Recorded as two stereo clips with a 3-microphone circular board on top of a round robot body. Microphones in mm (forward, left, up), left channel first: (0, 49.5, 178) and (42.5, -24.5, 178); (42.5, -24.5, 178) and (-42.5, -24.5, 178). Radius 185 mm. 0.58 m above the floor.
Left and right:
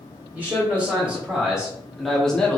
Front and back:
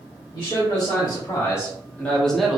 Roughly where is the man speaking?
Ahead.